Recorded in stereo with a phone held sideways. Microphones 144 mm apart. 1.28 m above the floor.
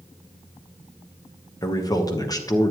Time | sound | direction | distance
1.6 | a man speaking | 25° left (ahead or behind) | 1.1 m